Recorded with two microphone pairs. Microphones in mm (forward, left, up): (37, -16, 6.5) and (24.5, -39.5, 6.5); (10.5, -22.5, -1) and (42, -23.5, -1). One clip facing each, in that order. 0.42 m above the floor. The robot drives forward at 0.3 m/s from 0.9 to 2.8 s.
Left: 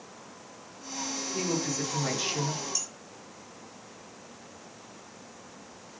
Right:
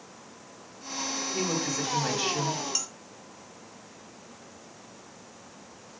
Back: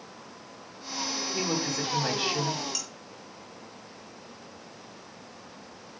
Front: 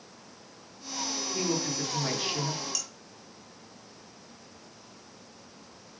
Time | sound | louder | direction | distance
1.3 | a woman speaking | even, even | 175° right | 2 m
2.8 | dishes clattering | right 3 dB, back 1 dB | 110° right | 1.6 m